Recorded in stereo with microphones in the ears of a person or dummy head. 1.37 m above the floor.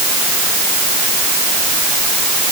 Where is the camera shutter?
No camera shutter in this recording.